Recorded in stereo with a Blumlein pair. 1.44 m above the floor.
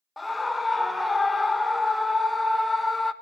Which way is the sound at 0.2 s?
10° left.